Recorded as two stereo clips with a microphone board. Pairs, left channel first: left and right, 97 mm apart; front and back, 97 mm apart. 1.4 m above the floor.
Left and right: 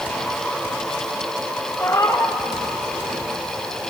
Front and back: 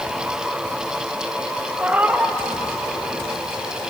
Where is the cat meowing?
120° left, 0.7 m.